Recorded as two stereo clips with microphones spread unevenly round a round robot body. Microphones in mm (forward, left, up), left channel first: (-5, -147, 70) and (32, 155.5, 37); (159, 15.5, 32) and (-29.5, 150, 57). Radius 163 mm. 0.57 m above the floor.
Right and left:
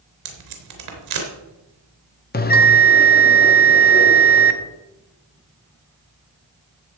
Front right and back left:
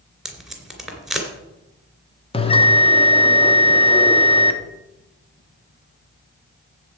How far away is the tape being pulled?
About 3 m.